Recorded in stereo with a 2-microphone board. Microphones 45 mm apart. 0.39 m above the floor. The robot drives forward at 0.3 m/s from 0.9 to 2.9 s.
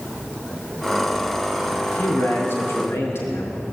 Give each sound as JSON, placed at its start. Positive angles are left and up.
{"t": 1.9, "sound": "a man speaking", "side_deg": 75, "distance_m": 5.0}